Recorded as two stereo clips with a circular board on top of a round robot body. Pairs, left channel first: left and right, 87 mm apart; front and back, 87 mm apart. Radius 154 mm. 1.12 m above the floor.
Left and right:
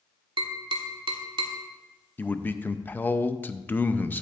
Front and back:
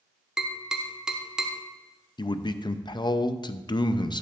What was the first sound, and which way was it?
Tapping, 100° right.